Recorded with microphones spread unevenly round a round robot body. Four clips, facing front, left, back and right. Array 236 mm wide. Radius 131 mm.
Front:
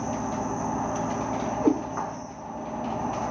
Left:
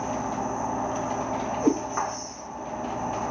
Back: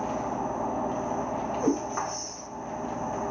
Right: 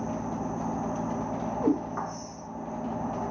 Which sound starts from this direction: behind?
A cat meowing, at 1.6 s.